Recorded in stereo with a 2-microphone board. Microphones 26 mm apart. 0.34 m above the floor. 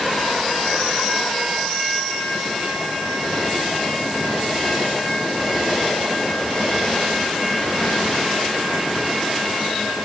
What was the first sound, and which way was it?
Only background noise.